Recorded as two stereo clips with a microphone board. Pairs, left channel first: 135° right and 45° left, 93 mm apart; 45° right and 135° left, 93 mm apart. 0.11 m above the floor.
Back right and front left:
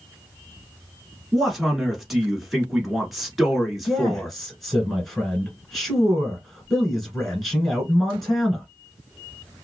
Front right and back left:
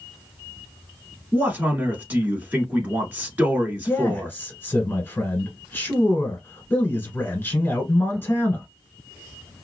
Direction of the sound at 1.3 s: 130° left.